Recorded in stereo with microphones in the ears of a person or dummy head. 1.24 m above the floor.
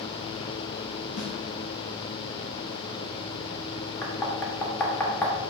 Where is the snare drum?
60° left (ahead or behind), 0.8 m.